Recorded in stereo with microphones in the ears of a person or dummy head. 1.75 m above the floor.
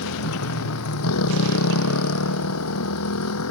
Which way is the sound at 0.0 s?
80° left.